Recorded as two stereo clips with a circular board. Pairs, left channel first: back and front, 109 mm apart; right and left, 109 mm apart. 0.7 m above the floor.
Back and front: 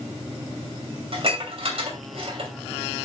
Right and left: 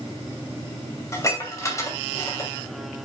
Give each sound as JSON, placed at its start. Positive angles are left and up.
{"t": 1.1, "sound": "dishes clattering", "azimuth_deg": -30, "distance_m": 2.5}